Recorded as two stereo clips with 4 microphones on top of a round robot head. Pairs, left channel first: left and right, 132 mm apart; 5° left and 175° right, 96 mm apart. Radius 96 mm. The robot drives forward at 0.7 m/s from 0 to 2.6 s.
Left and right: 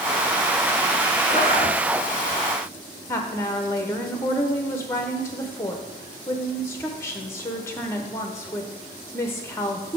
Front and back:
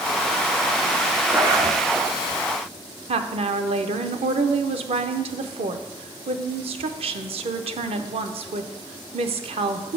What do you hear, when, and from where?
1.3 s a zipper: 135° left, 1.5 m; by 1.8 s 145° left, 1.7 m
3.1 s a woman speaking: 165° left, 0.6 m